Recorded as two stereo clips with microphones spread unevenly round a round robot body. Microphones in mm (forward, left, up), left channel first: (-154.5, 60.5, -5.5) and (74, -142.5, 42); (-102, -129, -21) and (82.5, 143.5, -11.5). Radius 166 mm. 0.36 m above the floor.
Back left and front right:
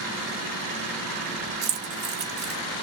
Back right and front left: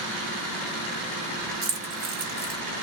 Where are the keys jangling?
10° left, 0.6 m.